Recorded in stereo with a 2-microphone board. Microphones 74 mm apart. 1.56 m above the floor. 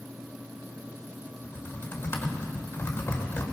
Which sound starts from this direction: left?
Typing on a keyboard, at 1.4 s.